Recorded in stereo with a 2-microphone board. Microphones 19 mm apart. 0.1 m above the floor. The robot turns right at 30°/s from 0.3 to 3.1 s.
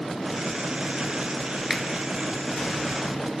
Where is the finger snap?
25° right (ahead or behind), 1.0 m.